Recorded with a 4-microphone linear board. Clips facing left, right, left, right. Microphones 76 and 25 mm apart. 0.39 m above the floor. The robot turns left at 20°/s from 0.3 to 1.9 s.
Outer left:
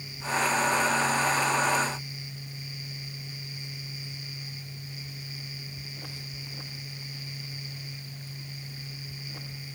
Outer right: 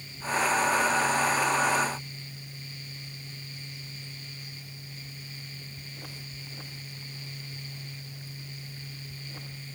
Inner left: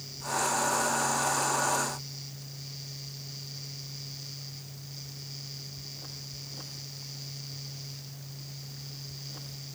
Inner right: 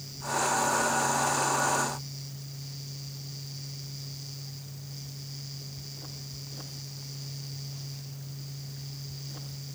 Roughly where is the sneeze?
I don't hear a sneeze.